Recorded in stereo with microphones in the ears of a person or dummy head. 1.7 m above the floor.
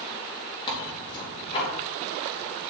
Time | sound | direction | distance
0.7 | tearing paper | 30° left (ahead or behind) | 3.5 m